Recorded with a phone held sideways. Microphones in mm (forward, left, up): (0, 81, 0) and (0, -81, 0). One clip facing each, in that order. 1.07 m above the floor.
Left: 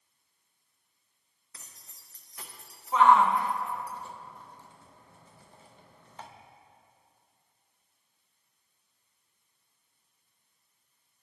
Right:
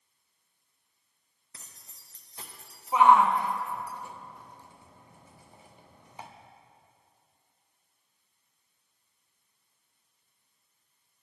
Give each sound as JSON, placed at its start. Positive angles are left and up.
{"t": 1.5, "sound": "keys jangling", "side_deg": -25, "distance_m": 0.7}
{"t": 2.9, "sound": "a shout", "side_deg": -15, "distance_m": 0.6}